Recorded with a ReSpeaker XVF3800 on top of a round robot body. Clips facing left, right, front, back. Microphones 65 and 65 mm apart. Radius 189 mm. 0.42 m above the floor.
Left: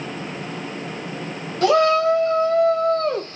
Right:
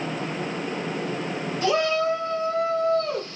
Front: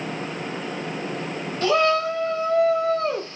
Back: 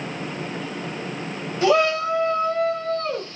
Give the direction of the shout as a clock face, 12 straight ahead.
9 o'clock.